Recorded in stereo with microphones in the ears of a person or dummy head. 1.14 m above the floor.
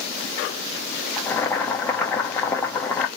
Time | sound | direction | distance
1.2 | boiling | 10° left (ahead or behind) | 0.8 m